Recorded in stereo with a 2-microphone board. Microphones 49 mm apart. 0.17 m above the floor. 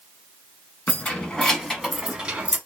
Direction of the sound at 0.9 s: 35° left (ahead or behind).